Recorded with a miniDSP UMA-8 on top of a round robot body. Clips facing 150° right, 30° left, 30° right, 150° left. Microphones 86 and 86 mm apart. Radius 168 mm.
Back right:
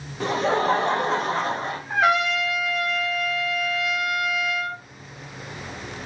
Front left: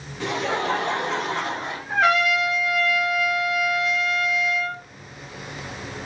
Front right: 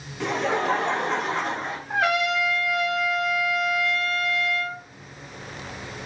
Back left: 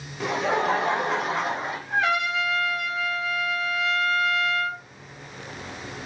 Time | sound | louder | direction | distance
0.2 | laughter | back right 3 dB, even | 130° right | 1.1 m
1.9 | a trumpet | front left 1 dB, front right 1 dB | 65° right | 0.9 m